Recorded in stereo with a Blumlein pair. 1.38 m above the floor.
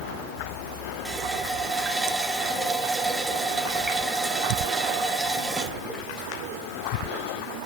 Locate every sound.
1.1 s a running tap: 10° right, 1.4 m